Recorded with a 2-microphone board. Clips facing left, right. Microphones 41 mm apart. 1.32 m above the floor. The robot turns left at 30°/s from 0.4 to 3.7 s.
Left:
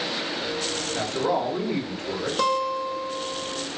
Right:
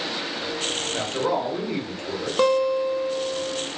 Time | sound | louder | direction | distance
0.9 | a man speaking | even | 160° right | 1.2 m
2.4 | a guitar | right 5 dB | 20° right (ahead or behind) | 0.6 m